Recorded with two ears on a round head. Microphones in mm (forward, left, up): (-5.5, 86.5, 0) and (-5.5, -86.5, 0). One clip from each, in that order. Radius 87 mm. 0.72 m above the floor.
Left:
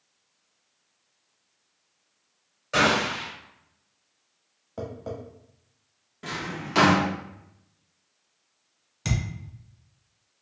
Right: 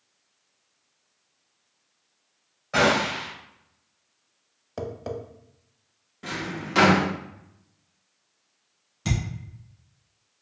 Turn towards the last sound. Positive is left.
turn(degrees=30)  # may be behind; listen again after turning